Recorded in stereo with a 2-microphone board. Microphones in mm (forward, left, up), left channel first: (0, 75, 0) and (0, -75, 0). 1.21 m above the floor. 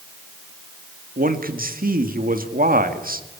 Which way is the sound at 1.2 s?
65° right (ahead or behind).